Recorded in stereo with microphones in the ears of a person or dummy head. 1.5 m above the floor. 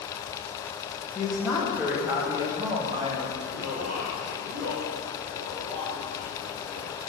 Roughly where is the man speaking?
Right.